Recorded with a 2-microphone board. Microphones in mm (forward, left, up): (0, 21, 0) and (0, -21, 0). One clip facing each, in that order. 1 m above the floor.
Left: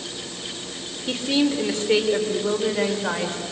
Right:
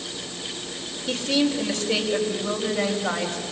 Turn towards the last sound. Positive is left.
turn(degrees=30)  # may be behind; listen again after turning